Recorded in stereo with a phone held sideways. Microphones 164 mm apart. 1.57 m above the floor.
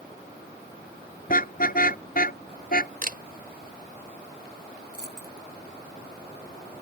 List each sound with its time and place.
1.3 s a car horn: 55° left (ahead or behind)
3.0 s a camera shutter: 60° right (ahead or behind)
4.9 s a dropped coin: 75° left (ahead or behind)